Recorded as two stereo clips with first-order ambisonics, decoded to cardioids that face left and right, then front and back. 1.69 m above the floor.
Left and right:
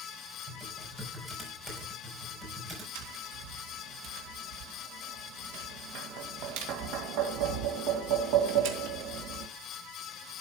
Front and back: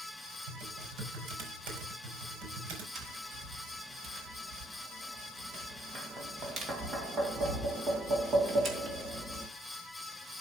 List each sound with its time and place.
0.5 s typing on a keyboard: 170° right, 4.5 m
3.0 s tapping: 115° right, 2.5 m